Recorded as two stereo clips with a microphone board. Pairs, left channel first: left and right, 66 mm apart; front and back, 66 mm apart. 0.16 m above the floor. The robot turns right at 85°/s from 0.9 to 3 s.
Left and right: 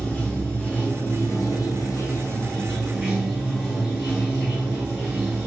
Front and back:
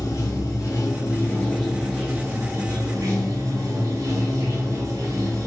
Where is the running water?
20° left, 1.0 m; by 5.5 s 160° right, 1.0 m.